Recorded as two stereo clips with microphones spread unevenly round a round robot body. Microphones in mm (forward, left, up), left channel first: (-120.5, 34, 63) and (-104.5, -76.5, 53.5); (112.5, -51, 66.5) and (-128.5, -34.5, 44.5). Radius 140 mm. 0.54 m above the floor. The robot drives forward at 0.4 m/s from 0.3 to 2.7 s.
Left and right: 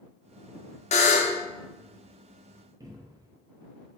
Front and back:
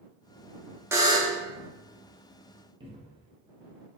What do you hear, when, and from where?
0.9 s a buzzer: 100° left, 0.6 m; by 1.4 s 120° left, 0.7 m
2.8 s a cupboard door: 125° right, 1.2 m